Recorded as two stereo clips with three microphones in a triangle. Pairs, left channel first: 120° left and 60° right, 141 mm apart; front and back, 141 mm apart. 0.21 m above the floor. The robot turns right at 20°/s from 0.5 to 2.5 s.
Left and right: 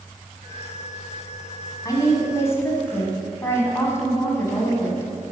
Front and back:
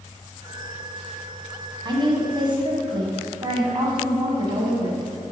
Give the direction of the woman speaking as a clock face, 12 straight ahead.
7 o'clock.